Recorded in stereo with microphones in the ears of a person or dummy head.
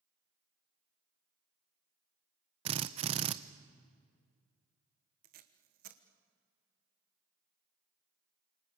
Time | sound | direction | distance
2.6 | a drill | 30° right (ahead or behind) | 0.7 m
5.2 | tape being pulled | 50° right (ahead or behind) | 1.3 m